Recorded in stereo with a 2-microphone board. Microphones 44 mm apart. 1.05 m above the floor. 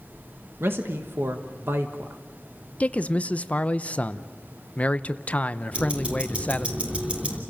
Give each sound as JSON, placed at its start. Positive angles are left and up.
{"t": 0.6, "sound": "a man speaking", "side_deg": -60, "distance_m": 1.4}
{"t": 2.8, "sound": "a man speaking", "side_deg": 30, "distance_m": 0.7}
{"t": 5.7, "sound": "ticking", "side_deg": -25, "distance_m": 3.0}